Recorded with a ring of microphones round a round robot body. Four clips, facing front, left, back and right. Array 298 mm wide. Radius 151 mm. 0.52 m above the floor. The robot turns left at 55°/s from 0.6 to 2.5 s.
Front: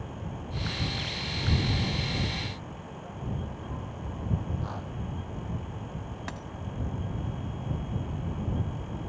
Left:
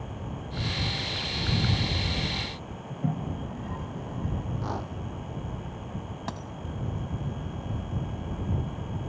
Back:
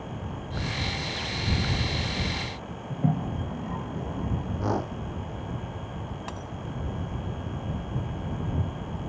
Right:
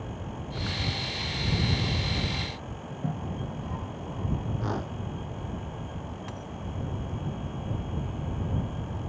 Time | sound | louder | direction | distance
2.9 | a toilet flushing | left 3 dB, back 12 dB | 170° left | ?
4.6 | a whoosh | right 1 dB, back 9 dB | 165° right | ?
6.3 | a dropped coin | left 3 dB, back 2 dB | 70° left | ?